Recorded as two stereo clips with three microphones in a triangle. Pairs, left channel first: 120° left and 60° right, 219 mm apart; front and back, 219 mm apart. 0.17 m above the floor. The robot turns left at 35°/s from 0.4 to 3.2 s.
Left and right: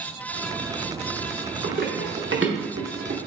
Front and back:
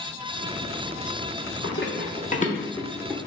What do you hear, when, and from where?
1.6 s running footsteps: 15° right, 1.7 m; by 3.3 s 95° right, 1.1 m